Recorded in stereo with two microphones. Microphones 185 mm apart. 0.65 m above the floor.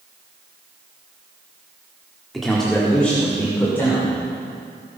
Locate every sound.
2.3 s a man speaking: centre (ahead or behind), 1.6 m; by 4.1 s 10° left (ahead or behind), 3 m